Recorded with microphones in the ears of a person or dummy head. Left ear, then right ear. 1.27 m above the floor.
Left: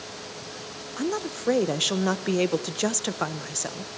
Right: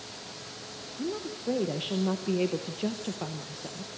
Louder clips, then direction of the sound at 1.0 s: Left 6 dB; 55° left (ahead or behind).